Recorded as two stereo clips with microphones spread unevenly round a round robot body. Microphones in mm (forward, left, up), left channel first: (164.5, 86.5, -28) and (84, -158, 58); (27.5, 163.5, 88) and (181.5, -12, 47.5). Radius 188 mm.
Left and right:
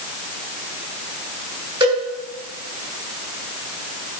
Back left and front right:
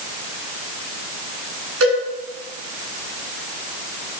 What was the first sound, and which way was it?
A cowbell, 35° right.